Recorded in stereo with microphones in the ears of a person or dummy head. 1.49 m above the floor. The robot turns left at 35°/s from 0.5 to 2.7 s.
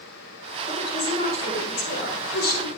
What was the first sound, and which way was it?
A woman speaking, 160° left.